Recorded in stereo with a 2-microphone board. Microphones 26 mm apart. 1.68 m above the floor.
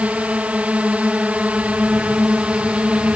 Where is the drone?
65° right (ahead or behind); by 3.2 s 55° right (ahead or behind).